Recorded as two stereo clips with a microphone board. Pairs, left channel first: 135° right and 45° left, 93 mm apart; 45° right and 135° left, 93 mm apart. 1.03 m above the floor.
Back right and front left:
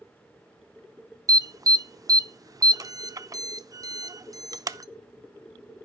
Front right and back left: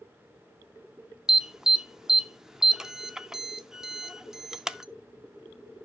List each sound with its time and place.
1.3 s an alarm: 55° left, 0.5 m